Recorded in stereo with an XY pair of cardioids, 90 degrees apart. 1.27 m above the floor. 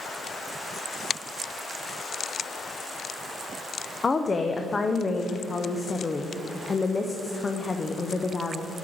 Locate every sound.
4.0 s a woman speaking: 30° left, 0.7 m